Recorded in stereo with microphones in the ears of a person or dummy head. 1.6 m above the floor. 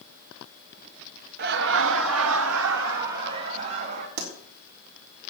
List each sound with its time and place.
1.4 s laughter: 55° right (ahead or behind), 0.8 m
4.2 s a pop: 55° right (ahead or behind), 3.5 m